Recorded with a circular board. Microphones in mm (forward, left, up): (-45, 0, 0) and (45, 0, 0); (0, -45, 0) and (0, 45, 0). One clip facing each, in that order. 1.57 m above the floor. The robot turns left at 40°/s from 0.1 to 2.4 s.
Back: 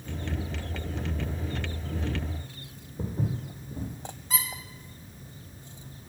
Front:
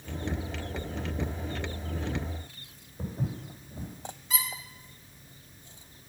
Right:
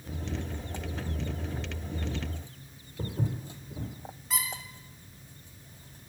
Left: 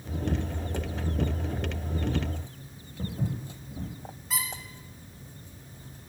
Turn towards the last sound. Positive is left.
turn(degrees=175)